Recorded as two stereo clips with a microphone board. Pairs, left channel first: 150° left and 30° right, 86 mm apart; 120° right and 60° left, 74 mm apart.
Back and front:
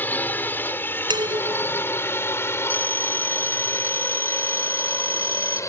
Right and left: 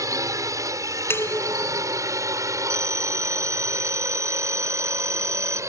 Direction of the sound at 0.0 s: 85° left.